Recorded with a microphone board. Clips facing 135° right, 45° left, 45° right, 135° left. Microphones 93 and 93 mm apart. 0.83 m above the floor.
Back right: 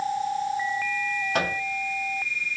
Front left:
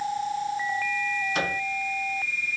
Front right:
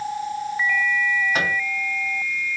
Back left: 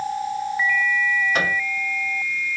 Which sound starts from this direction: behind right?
A microwave, at 1.3 s.